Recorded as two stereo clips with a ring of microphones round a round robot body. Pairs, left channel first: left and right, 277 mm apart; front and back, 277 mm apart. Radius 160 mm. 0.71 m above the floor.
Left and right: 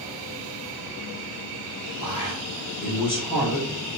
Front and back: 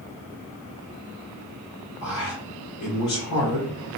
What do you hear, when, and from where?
2.0 s a man speaking: 30° left, 3 m